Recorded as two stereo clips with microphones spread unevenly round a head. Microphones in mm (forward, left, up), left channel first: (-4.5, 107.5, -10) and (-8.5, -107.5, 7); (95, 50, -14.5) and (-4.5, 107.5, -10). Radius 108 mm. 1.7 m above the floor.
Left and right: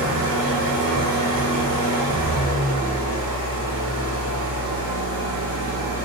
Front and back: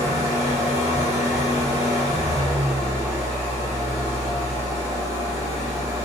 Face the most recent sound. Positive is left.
turn(degrees=-85)